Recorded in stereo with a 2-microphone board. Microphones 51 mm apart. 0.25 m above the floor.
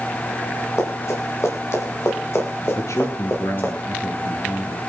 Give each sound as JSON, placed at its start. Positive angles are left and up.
{"t": 0.8, "sound": "running footsteps", "side_deg": 75, "distance_m": 7.0}
{"t": 2.8, "sound": "a man speaking", "side_deg": 70, "distance_m": 3.5}